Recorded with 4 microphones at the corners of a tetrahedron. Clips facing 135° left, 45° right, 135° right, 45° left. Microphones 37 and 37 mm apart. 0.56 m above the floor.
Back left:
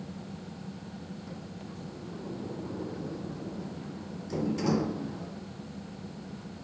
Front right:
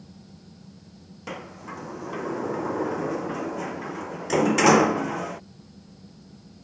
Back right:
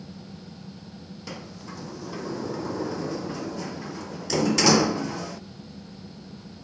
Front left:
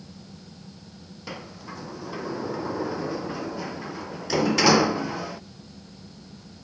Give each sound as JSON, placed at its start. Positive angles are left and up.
{"t": 1.3, "sound": "a sliding door", "azimuth_deg": -35}